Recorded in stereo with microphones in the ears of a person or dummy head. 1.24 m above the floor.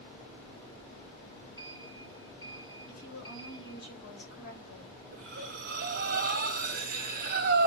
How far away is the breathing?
About 2 m.